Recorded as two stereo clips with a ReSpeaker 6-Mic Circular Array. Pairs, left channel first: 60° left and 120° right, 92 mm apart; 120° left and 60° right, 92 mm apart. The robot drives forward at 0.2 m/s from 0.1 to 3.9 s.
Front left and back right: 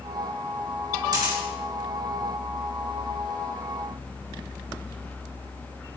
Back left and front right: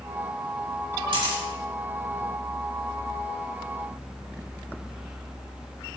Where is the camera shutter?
80° right, 3 m.